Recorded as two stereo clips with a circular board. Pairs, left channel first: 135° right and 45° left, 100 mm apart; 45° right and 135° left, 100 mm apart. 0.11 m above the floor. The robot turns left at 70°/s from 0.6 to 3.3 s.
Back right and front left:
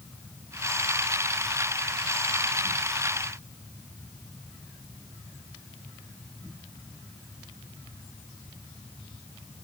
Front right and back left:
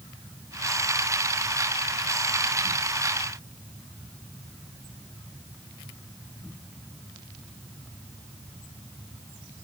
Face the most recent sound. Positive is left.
No sound to turn to.